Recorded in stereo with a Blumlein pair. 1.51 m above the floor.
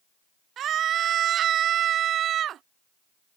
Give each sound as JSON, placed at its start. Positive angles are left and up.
{"t": 0.6, "sound": "a scream", "azimuth_deg": -30}